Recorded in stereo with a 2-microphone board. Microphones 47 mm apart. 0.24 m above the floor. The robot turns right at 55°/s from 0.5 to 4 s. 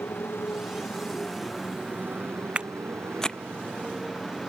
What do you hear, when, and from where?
0.0 s a motorcycle: 60° left (ahead or behind); by 4.5 s 15° right (ahead or behind)
2.5 s footsteps: 25° right (ahead or behind); by 3.4 s 25° left (ahead or behind)